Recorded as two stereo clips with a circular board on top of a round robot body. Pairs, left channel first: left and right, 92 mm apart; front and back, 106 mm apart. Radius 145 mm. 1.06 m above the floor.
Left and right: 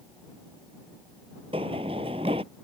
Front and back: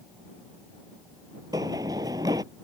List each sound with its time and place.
1.5 s running footsteps: 125° right